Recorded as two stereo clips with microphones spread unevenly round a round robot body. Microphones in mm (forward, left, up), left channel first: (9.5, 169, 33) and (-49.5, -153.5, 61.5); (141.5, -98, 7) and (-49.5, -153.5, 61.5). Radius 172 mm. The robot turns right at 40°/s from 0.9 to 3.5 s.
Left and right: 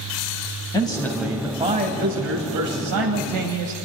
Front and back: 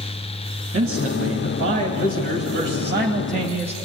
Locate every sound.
0.7 s a man speaking: 155° left, 2.5 m; by 3.8 s 100° right, 2.5 m